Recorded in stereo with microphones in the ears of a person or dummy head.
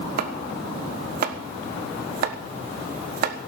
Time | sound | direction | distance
0.2 | chopping | 55° right (ahead or behind) | 1.2 m